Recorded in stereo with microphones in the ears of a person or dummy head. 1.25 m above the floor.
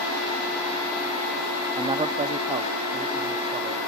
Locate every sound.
1.8 s a man speaking: 25° right (ahead or behind)